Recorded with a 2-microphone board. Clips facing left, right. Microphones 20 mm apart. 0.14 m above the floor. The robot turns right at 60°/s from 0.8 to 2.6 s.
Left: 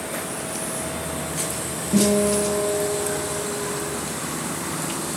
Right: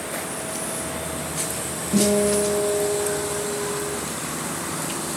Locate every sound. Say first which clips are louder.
1.9 s a guitar: even; 155° left, 2.5 m; by 4.0 s 165° right, 2.5 m